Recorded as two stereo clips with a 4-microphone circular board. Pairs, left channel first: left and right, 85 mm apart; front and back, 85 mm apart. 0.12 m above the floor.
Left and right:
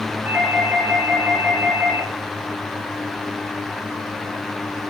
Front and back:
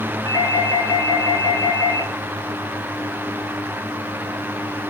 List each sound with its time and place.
0.2 s a doorbell: 30° right, 1.9 m